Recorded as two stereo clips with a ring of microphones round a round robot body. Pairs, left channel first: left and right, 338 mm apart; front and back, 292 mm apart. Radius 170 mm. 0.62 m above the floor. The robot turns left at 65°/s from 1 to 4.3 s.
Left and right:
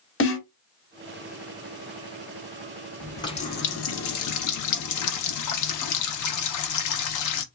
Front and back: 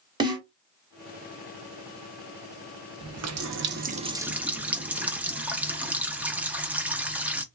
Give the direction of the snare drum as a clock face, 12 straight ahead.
8 o'clock.